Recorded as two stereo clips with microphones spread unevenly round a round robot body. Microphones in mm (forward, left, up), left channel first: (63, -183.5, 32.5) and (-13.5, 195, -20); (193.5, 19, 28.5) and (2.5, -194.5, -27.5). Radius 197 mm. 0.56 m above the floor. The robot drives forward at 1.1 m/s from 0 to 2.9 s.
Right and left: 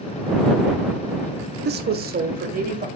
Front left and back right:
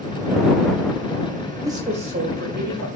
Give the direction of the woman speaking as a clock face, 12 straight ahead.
7 o'clock.